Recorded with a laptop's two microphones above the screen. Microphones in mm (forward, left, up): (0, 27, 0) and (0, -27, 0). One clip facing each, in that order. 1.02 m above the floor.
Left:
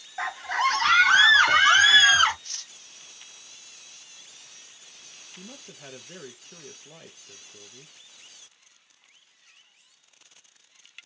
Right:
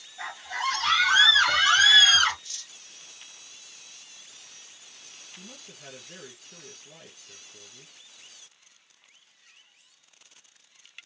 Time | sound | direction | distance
0.2 | a scream | 70° left (ahead or behind) | 1.7 m
2.4 | cutlery clinking | 50° left (ahead or behind) | 0.8 m
5.4 | a man speaking | 20° left (ahead or behind) | 1.0 m